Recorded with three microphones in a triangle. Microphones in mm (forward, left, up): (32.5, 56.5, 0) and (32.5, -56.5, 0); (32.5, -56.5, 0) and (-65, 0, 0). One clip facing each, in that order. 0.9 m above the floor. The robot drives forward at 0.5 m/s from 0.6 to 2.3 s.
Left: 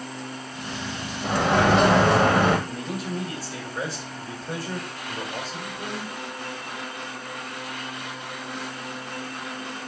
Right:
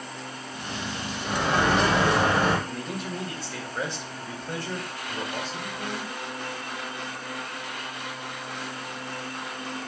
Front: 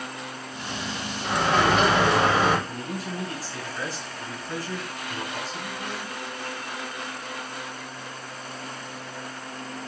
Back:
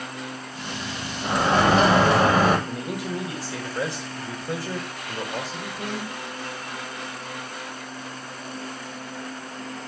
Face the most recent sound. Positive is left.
turn(degrees=175)